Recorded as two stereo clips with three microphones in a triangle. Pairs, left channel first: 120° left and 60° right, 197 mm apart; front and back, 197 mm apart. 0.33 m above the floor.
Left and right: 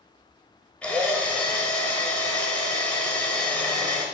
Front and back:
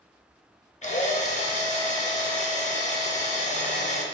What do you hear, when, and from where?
0.8 s a drill: 40° left, 0.6 m